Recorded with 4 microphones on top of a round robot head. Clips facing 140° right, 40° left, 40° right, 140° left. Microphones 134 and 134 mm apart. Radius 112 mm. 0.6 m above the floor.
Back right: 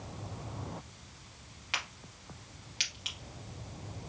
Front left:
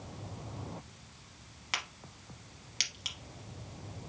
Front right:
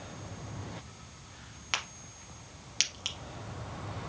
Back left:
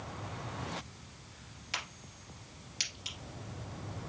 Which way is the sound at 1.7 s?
10° right.